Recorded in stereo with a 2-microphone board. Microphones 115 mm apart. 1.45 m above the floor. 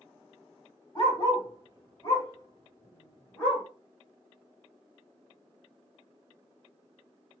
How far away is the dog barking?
About 1.5 m.